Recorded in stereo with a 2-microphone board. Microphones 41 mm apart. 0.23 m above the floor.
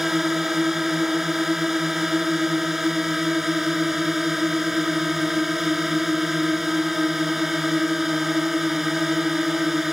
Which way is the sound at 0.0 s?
5° right (ahead or behind).